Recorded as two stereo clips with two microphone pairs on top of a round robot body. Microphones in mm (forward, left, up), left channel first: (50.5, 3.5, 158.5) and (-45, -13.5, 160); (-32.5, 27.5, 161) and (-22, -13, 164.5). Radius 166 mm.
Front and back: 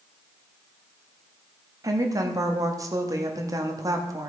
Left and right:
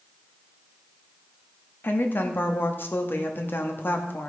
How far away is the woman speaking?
About 1.8 m.